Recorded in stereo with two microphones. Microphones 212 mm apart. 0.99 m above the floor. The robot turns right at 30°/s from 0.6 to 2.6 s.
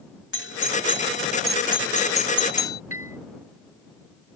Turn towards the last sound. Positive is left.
turn(degrees=-80)